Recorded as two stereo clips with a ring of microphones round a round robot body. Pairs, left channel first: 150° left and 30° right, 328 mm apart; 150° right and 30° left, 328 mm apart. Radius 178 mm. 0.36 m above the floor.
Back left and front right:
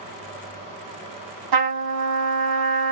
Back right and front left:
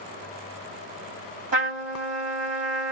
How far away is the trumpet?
About 2.5 m.